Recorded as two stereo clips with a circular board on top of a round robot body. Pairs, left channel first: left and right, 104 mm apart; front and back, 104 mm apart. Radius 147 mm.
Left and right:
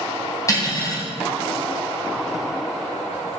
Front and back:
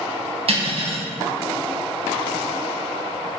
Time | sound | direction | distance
0.5 | cutlery clinking | 150° left | 3 m